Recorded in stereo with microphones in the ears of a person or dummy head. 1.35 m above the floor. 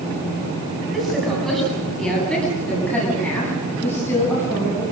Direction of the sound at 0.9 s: Centre (ahead or behind).